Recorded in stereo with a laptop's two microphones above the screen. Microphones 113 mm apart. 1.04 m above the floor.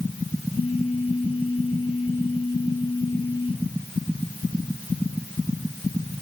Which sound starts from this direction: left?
A phone buzzing, at 0.5 s.